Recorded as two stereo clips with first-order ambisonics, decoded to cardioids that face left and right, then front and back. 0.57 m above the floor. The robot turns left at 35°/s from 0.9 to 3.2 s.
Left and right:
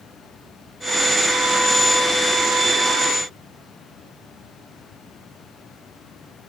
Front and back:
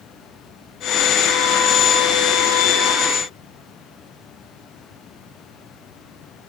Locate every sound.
Only background noise.